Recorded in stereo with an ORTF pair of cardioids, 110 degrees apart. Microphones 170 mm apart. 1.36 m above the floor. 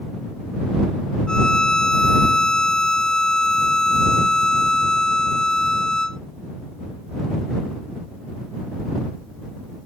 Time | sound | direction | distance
1.3 | a violin | 5° left | ?